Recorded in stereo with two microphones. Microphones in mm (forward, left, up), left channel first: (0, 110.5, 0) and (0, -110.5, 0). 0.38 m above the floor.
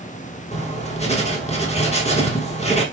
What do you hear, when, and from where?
0.5 s writing: 30° left (ahead or behind), 0.9 m